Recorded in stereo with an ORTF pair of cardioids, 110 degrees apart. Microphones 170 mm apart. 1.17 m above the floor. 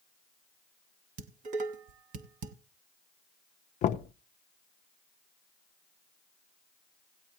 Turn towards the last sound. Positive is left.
turn(degrees=50)